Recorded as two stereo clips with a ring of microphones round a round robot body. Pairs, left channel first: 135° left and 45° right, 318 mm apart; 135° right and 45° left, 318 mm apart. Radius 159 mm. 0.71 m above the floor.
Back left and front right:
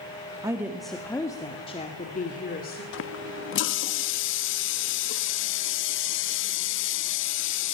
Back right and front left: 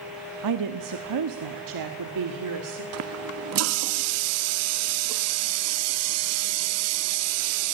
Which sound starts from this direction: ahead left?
A woman speaking, at 0.4 s.